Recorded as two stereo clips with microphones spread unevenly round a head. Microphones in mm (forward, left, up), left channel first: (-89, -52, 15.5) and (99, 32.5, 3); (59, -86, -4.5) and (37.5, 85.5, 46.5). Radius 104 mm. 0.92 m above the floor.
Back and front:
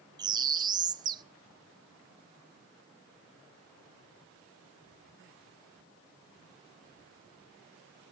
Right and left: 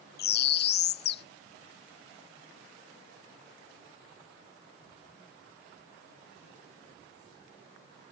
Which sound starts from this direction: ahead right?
A bird, at 0.2 s.